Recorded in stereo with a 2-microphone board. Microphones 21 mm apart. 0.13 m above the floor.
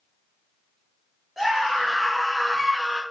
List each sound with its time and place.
1.4 s a scream: 5° right (ahead or behind), 1.9 m; by 3.0 s 15° left (ahead or behind), 1.7 m